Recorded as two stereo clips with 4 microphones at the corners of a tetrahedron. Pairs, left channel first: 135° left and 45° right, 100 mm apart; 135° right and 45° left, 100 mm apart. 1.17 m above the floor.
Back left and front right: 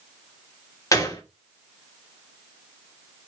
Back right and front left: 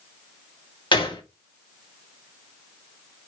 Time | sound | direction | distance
0.9 | a gunshot | 170° right | 2 m